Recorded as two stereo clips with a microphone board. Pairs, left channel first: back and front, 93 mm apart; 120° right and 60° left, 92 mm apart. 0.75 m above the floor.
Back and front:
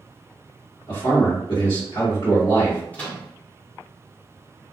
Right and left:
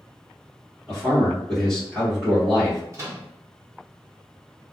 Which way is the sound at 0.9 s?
160° left.